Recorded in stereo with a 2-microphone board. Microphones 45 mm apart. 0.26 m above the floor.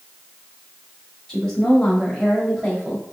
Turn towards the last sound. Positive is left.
turn(degrees=-10)  # may be behind; listen again after turning